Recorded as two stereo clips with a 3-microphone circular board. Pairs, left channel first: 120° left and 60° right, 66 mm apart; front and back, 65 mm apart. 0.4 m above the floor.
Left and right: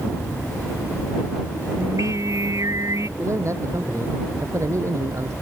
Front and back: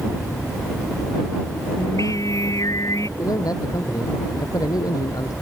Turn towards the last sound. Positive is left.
turn(degrees=-20)